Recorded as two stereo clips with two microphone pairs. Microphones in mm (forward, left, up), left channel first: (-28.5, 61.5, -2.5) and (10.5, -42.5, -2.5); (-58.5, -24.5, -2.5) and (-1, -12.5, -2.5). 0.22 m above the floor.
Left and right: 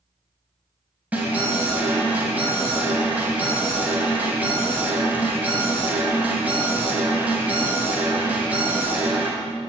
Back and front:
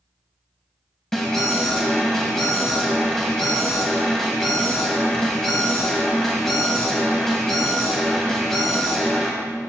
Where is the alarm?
105° right, 2 m.